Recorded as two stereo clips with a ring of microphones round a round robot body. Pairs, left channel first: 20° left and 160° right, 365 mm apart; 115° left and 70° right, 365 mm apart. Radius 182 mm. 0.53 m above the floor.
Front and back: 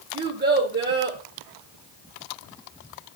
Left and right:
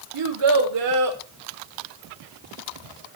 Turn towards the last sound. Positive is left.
turn(degrees=-95)